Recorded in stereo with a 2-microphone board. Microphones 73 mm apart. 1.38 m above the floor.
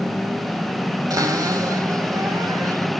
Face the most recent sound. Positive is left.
turn(degrees=-55)  # may be behind; listen again after turning